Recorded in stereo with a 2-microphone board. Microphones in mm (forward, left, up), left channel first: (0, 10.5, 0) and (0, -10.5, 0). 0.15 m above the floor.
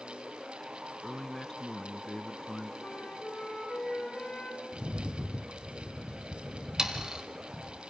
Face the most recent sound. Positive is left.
turn(degrees=-30)  # may be behind; listen again after turning